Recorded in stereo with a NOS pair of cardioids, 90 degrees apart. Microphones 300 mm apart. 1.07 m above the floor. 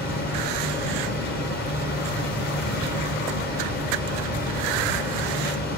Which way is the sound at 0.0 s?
35° left.